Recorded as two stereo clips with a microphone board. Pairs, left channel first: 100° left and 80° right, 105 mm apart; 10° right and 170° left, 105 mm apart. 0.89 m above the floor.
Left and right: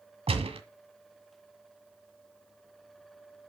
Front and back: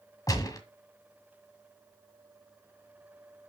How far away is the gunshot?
About 1.7 m.